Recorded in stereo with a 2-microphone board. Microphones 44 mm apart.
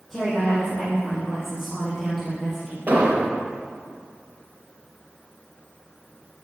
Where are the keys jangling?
I don't hear keys jangling.